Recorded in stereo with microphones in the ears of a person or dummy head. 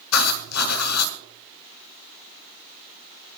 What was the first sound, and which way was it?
Writing, 85° left.